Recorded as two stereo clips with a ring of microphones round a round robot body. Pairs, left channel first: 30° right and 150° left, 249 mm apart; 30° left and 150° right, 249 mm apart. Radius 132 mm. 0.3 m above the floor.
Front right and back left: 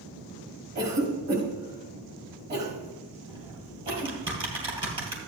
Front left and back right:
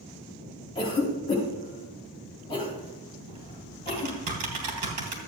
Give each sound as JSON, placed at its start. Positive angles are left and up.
{"t": 0.8, "sound": "a cough", "azimuth_deg": 100, "distance_m": 4.5}
{"t": 3.3, "sound": "typing on a keyboard", "azimuth_deg": -140, "distance_m": 3.0}